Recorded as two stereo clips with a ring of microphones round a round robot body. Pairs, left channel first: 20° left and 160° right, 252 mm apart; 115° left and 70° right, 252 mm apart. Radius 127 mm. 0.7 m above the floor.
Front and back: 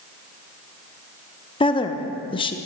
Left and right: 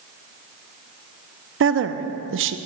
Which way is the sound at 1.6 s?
45° right.